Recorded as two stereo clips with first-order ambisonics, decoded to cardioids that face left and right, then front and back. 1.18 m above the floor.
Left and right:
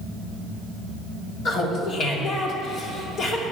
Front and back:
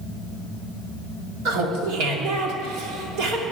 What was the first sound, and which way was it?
Laughter, 150° left.